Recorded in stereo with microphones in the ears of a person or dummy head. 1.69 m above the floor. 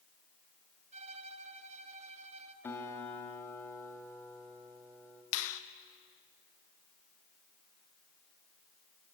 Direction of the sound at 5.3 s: 75° left (ahead or behind).